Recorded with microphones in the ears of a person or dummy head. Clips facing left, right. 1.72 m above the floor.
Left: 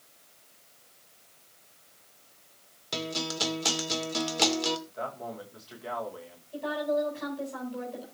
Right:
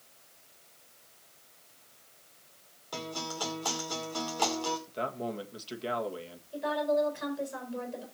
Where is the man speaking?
40° right (ahead or behind), 1.9 m.